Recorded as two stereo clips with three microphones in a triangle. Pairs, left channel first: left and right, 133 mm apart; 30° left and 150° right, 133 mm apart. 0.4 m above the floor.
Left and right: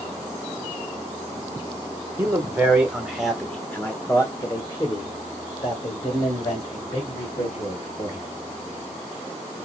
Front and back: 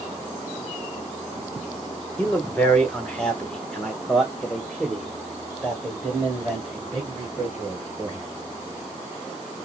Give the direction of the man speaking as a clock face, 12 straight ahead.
1 o'clock.